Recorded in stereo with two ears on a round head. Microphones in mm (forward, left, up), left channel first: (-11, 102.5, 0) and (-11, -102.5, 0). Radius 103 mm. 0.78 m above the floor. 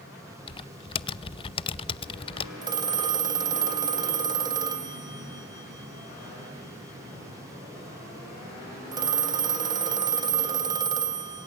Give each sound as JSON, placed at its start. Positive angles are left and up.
{"t": 0.5, "sound": "typing on a keyboard", "side_deg": 25, "distance_m": 0.7}
{"t": 2.6, "sound": "a phone ringing", "side_deg": -20, "distance_m": 2.5}